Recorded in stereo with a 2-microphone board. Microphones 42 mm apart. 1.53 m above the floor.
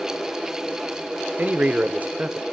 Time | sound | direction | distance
1.4 | a man speaking | 35° right (ahead or behind) | 0.9 m